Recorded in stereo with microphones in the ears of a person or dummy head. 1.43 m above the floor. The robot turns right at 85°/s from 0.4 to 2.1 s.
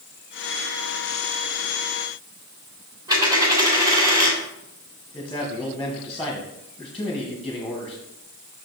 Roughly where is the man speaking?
Centre.